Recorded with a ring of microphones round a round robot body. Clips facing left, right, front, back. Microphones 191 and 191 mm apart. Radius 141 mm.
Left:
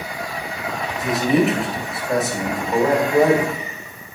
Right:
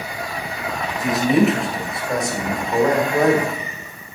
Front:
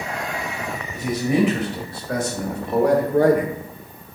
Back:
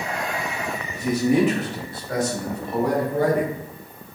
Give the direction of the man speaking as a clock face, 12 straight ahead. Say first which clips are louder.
Right 1 dB, back 1 dB; 12 o'clock.